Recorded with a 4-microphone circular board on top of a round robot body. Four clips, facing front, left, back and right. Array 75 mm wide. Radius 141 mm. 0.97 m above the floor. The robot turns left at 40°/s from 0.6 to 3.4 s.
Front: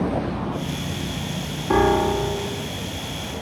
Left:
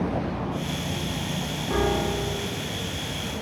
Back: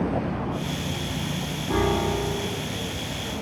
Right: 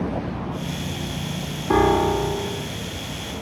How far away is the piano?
About 2.5 m.